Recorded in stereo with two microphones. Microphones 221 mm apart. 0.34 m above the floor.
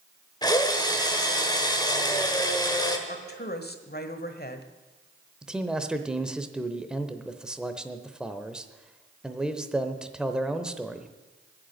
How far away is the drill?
About 1.3 m.